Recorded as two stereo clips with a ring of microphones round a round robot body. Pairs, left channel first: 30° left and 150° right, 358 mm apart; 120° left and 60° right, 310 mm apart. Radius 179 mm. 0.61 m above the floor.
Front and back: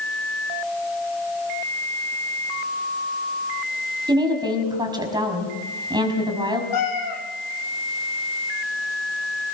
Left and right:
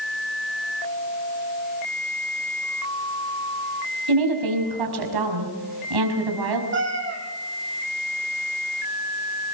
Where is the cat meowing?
5° right, 5 m.